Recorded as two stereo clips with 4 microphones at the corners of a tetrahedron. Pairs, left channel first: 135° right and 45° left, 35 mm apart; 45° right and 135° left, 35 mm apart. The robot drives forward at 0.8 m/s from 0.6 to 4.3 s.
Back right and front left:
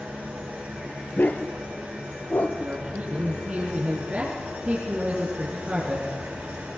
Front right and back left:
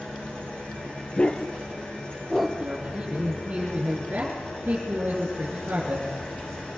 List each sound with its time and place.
0.0 s an engine running: 10° left, 10 m; by 6.8 s 15° left, 7 m
1.2 s a dog barking: 105° right, 1.4 m; by 2.5 s 135° right, 2.0 m
2.6 s a man speaking: 85° left, 4 m; by 6.1 s 105° left, 4 m